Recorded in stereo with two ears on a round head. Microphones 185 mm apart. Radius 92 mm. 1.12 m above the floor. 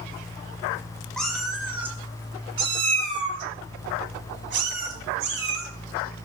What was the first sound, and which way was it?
A cat meowing, 5° left (ahead or behind).